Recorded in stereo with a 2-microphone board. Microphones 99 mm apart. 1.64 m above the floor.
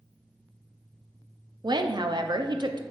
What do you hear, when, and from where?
1.6 s a woman speaking: 50° right (ahead or behind), 0.6 m